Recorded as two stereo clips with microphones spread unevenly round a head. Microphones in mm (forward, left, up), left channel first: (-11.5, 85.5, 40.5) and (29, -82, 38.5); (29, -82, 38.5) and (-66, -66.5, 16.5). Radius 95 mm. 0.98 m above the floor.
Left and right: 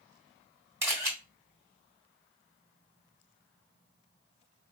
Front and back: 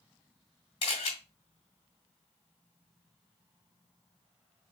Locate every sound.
0.8 s a camera shutter: straight ahead, 1.7 m